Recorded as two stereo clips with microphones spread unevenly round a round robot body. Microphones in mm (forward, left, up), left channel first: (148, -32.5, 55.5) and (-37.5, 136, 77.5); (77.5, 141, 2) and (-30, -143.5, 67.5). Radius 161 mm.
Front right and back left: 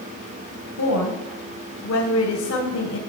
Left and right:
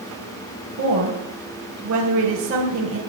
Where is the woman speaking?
60° right, 3 m.